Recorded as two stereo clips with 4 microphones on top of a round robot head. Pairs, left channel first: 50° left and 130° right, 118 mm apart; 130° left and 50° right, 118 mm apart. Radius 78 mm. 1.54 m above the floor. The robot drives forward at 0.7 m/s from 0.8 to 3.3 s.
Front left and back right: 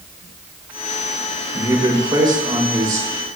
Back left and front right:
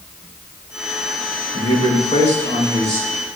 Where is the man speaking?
175° left, 5.5 m.